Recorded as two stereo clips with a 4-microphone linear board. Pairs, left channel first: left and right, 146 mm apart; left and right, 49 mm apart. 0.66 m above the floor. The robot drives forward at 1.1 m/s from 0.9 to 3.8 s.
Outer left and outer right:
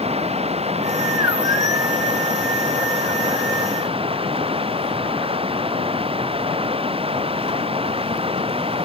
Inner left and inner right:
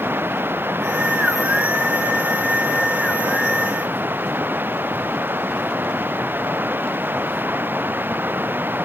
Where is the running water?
45° right (ahead or behind); by 8.9 s 40° right (ahead or behind).